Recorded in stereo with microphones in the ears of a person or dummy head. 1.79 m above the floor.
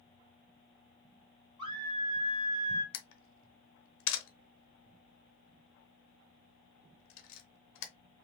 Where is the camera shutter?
75° left (ahead or behind), 0.7 m.